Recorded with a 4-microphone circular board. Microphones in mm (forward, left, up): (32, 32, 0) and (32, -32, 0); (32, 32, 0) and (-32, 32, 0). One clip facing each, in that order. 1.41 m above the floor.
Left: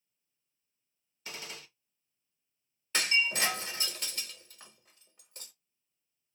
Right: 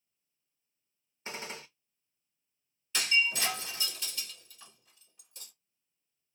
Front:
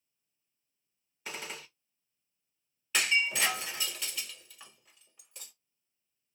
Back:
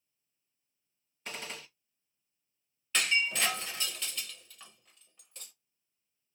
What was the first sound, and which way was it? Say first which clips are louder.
A gunshot: right 4 dB, front 1 dB; 75° right.